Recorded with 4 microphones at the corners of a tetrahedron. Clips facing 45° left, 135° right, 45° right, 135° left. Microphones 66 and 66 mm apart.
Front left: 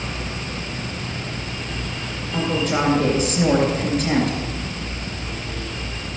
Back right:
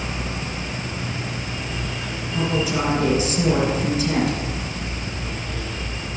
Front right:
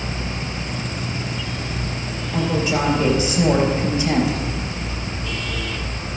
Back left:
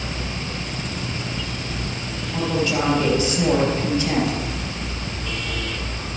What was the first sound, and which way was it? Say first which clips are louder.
A woman speaking: front left 1 dB, front right 1 dB; 25° left.